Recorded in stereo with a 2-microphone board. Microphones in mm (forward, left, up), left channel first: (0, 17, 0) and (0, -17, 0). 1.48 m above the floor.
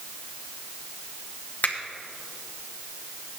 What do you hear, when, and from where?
1.6 s a finger snap: 55° left (ahead or behind), 1.5 m